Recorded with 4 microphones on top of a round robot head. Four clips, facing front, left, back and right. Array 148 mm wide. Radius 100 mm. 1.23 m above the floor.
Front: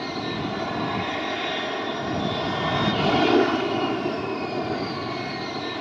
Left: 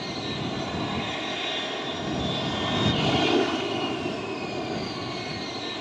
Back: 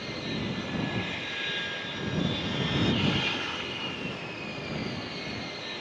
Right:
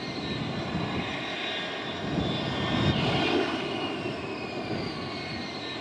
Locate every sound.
0.0 s an aircraft: 10° left